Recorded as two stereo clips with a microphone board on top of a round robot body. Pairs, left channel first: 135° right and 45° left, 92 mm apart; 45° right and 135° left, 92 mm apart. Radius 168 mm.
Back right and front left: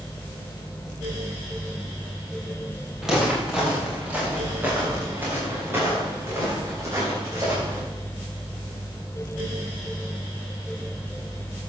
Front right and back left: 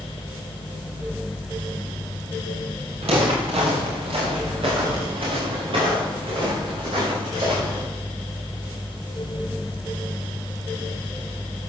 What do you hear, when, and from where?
3.0 s footsteps: 130° left, 4.5 m; by 7.8 s 105° left, 8.5 m